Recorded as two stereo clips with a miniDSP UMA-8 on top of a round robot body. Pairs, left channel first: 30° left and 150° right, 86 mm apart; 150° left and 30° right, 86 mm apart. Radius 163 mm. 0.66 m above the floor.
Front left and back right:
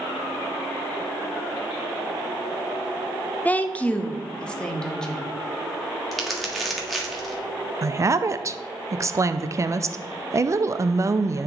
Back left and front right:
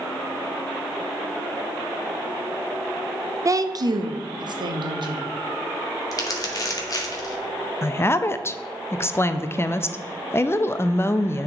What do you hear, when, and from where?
3.5 s a woman speaking: 30° right, 0.7 m; by 5.3 s 55° right, 1.5 m
6.1 s crumpling: 120° left, 1.6 m
7.8 s a woman speaking: 170° right, 0.6 m